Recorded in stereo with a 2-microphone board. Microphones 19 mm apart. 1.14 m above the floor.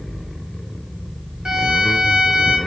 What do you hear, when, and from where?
1.4 s a violin: 40° right (ahead or behind), 1.4 m